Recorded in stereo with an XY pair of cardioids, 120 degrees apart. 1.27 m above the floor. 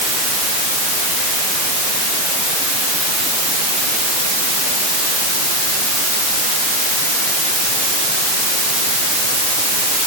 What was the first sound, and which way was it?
Only background noise.